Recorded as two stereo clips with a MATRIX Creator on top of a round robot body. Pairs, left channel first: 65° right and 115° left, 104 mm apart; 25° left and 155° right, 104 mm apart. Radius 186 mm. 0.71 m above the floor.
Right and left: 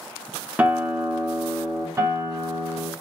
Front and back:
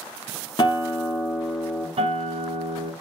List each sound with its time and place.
0.6 s a guitar: 40° left, 1.4 m
2.0 s a guitar: 175° left, 1.4 m